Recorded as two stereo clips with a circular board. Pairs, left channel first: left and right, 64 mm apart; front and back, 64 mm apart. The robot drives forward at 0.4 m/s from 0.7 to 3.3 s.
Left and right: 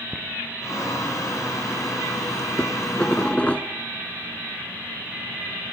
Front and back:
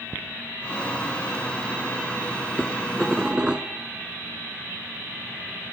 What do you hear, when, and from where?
2.6 s dishes clattering: 65° left, 0.7 m; by 3.7 s 125° left, 0.8 m